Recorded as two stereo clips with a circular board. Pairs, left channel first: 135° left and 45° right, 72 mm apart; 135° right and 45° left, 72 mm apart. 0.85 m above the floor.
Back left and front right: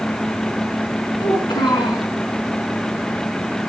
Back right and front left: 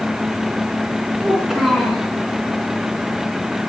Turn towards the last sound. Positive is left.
turn(degrees=130)